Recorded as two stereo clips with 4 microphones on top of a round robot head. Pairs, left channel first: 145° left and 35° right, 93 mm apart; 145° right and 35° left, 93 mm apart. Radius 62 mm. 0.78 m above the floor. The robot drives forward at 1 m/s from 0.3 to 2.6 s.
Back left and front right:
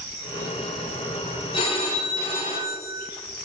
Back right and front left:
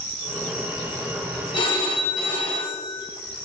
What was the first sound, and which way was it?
A phone ringing, straight behind.